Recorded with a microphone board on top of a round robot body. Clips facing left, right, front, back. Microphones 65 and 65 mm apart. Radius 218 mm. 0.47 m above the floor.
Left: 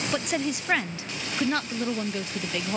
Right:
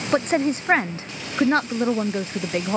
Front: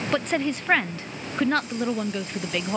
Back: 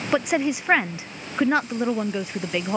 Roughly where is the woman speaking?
Right.